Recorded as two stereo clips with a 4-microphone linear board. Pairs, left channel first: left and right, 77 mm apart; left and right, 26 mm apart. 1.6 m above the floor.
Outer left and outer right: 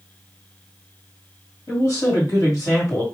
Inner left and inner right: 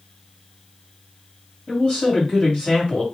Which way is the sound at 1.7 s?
45° left (ahead or behind).